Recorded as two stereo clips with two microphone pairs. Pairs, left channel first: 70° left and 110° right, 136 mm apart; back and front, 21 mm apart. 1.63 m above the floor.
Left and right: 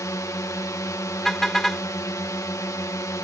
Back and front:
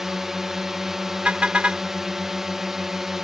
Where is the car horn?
20° right.